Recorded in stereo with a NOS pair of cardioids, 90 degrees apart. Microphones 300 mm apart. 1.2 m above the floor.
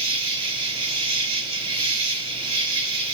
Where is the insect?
60° right, 3 m.